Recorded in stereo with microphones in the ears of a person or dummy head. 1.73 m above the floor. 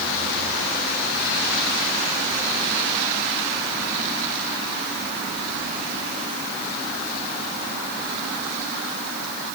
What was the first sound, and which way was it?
Only background noise.